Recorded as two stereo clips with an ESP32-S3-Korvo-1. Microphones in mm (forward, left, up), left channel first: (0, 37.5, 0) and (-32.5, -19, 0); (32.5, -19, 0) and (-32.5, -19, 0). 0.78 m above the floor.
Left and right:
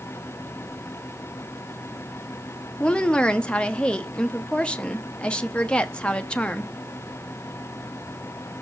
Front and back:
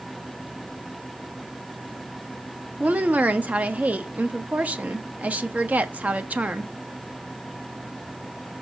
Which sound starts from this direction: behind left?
A woman speaking, at 2.8 s.